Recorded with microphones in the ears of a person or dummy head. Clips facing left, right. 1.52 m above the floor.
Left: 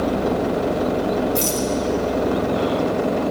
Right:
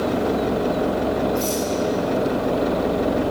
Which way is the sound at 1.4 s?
70° left (ahead or behind).